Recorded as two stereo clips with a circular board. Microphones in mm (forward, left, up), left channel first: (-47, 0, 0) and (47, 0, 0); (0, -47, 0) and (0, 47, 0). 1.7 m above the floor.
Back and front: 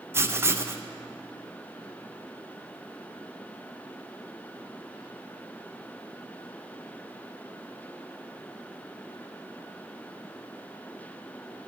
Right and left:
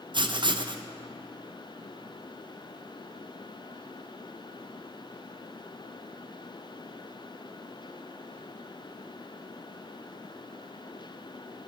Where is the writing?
65° left, 0.5 m.